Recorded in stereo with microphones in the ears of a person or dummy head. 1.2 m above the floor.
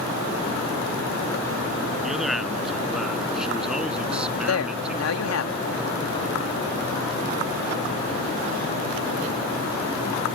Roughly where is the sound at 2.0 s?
Centre.